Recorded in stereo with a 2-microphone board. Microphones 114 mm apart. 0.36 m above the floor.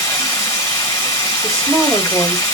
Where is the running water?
30° left (ahead or behind), 1.4 m.